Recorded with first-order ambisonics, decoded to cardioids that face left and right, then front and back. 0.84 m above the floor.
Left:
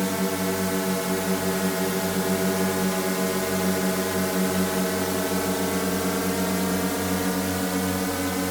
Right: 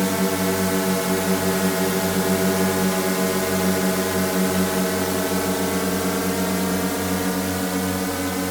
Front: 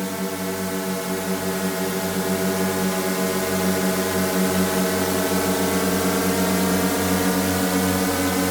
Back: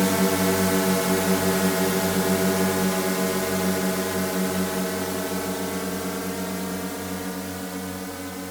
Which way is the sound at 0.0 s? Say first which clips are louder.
Right 4 dB, back 5 dB; 145° right.